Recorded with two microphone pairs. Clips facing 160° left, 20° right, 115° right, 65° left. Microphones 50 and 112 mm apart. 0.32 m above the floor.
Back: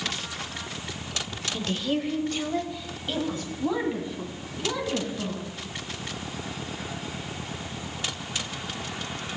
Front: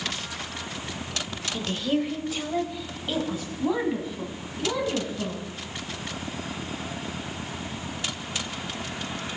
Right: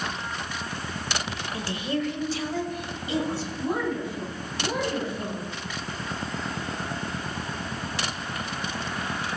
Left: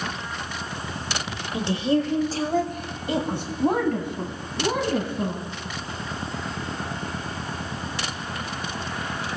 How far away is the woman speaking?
About 1.2 m.